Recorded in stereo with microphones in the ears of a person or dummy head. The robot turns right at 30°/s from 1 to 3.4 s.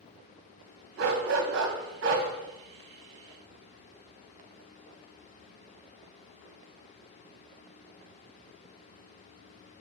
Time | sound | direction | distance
1.0 | a dog barking | 105° right | 2.5 m